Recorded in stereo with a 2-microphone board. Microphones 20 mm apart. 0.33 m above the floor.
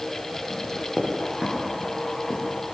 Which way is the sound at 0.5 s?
25° right (ahead or behind).